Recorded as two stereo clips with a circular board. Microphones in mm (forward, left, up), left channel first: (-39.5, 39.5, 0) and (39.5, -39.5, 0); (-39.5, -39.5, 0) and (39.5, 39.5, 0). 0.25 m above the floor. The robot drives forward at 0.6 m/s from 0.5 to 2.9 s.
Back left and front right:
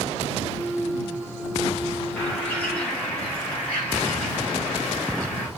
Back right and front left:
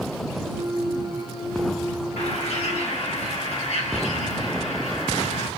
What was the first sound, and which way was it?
A bird, 140° right.